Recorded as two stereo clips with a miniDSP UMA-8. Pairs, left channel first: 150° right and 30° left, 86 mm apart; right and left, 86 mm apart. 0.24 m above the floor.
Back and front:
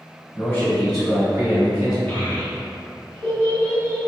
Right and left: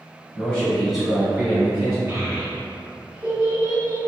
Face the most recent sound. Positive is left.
turn(degrees=150)